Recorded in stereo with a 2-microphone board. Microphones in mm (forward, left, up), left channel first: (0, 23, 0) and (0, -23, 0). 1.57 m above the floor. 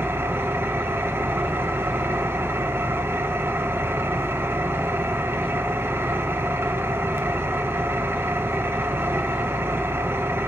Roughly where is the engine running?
Right.